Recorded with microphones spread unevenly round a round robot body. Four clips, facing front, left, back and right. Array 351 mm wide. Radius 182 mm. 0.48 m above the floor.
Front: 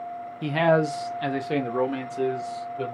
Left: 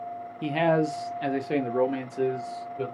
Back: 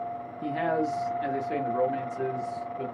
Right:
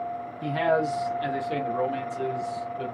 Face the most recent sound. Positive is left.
turn(degrees=35)